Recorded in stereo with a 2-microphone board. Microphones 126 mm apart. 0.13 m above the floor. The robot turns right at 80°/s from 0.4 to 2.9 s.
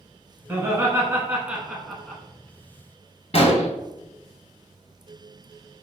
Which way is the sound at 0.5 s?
15° right (ahead or behind).